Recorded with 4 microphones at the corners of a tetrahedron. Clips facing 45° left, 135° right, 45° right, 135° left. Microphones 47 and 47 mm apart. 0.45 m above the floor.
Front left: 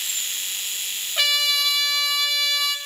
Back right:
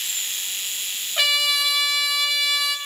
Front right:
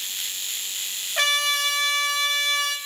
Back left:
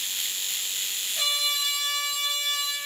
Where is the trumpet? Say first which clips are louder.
Back right 1 dB, front right 6 dB; 50° right, 3 m.